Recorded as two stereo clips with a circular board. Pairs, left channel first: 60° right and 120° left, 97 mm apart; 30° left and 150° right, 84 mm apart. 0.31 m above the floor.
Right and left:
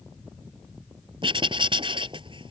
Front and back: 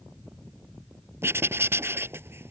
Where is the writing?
150° left.